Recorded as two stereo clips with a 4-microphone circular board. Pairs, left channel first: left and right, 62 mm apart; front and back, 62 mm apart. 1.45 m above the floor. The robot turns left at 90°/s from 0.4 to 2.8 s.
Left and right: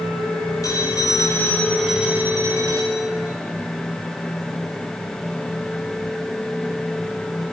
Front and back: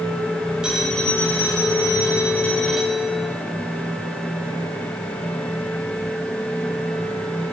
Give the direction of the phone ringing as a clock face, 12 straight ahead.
8 o'clock.